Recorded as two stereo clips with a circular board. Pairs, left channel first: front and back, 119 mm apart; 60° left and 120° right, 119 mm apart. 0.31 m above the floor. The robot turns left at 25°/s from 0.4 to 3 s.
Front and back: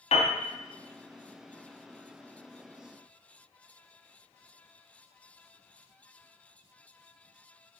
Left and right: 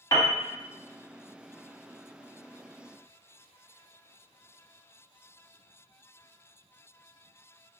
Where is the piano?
10° left, 0.7 m.